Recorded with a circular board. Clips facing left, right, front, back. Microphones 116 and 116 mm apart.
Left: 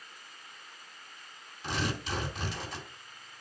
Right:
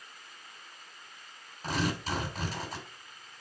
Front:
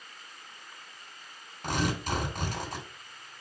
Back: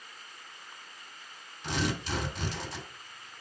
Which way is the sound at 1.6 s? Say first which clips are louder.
Right 2 dB, front 2 dB; 40° right.